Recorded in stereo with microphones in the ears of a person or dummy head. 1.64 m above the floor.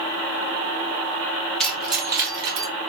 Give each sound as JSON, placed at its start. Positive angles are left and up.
{"t": 1.6, "sound": "keys jangling", "side_deg": 5, "distance_m": 0.9}